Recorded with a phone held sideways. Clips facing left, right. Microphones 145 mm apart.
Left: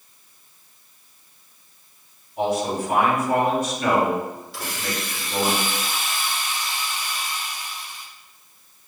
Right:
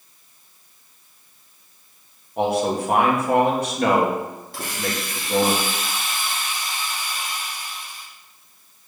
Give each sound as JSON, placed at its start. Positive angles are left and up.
{"t": 2.4, "sound": "a man speaking", "side_deg": -65, "distance_m": 1.9}
{"t": 4.5, "sound": "a hiss", "side_deg": -50, "distance_m": 2.5}